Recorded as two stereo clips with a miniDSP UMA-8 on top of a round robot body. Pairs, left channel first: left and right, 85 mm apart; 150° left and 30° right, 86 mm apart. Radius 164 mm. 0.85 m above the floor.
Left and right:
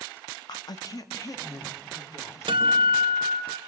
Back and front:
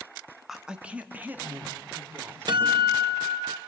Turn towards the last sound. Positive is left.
turn(degrees=-65)